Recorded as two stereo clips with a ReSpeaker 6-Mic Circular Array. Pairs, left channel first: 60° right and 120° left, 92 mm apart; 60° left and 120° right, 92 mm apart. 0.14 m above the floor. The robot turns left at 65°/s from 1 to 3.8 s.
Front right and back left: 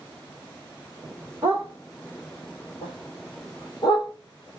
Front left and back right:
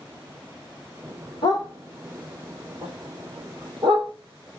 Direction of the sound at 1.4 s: 60° left.